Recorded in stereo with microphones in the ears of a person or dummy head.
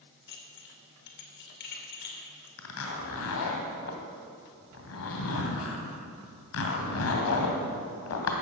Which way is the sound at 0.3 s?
60° left (ahead or behind).